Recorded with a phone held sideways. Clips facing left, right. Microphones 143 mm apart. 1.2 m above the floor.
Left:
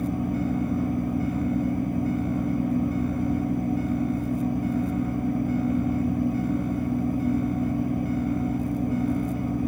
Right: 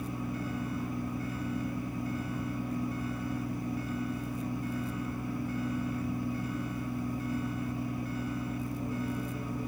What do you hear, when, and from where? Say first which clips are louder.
0.0 s a fan: left 10 dB; 55° left (ahead or behind), 1.0 m